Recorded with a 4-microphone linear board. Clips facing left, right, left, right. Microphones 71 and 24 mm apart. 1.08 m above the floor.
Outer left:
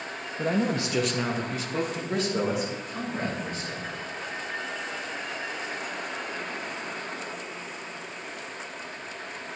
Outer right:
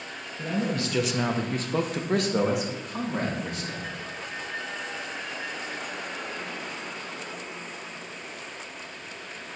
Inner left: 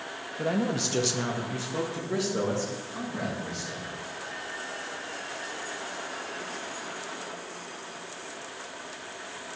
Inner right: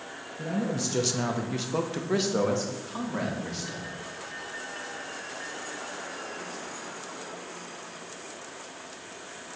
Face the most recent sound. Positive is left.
turn(degrees=-70)  # may be behind; listen again after turning